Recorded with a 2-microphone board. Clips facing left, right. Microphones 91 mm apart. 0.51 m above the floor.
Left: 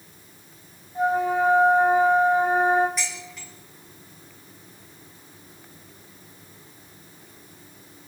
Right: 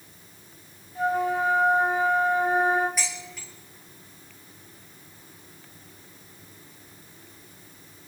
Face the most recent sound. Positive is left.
turn(degrees=-5)  # may be behind; listen again after turning